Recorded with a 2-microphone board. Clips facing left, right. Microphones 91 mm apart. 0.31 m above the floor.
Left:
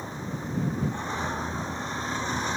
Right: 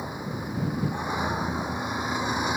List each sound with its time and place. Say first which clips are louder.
0.0 s a vehicle: right 2 dB; 10° right (ahead or behind)